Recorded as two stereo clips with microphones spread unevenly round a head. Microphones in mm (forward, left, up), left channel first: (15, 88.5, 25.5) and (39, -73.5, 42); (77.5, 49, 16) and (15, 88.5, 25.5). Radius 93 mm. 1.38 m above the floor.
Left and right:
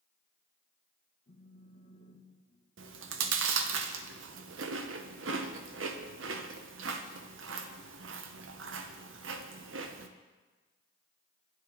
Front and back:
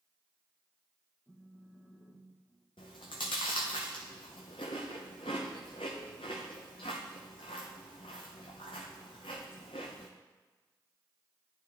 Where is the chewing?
85° right, 0.7 m.